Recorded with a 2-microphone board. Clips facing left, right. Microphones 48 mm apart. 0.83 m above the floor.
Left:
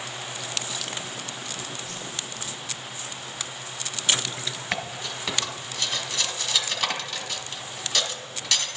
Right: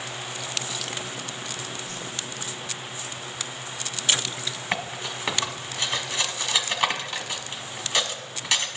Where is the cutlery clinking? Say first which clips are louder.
Right 2 dB; 25° right (ahead or behind), 1.3 m.